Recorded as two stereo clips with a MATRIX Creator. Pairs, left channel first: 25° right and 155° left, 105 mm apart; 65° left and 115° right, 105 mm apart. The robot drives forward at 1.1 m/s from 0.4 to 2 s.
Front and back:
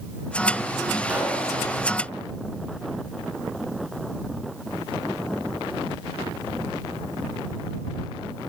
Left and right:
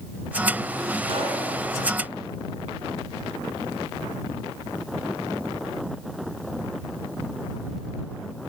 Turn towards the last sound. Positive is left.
turn(degrees=-145)